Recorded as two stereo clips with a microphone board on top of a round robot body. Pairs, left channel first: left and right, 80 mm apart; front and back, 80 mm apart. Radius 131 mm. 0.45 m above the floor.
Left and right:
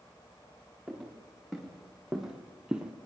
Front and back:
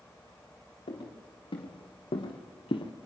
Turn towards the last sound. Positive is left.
turn(degrees=-15)